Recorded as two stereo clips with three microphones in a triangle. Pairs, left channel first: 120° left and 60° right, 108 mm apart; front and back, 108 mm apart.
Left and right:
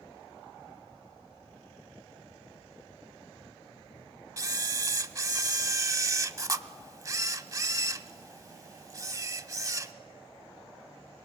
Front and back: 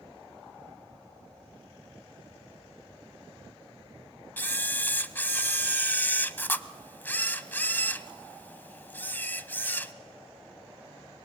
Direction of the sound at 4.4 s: 55° right.